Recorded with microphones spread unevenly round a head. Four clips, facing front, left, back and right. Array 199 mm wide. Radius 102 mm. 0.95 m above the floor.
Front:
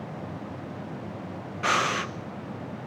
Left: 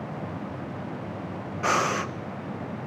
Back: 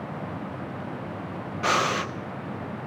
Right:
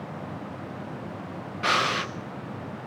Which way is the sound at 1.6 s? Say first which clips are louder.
Left 1 dB, back 1 dB; 140° left.